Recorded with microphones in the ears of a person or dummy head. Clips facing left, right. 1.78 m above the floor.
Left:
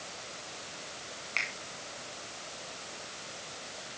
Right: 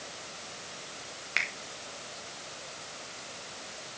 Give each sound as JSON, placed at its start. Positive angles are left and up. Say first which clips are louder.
{"t": 1.4, "sound": "a finger snap", "louder": "right 3 dB", "side_deg": -15, "distance_m": 0.9}